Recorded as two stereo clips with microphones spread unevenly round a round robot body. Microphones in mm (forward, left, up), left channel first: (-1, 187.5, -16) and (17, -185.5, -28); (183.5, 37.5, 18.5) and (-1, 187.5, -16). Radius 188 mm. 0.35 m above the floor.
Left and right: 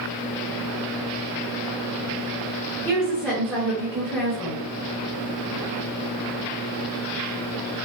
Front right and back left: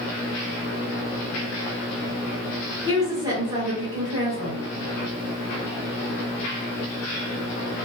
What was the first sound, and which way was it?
A woman speaking, 175° left.